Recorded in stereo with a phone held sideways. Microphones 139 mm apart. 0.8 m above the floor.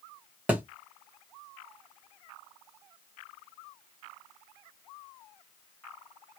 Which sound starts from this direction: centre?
A thud, at 0.5 s.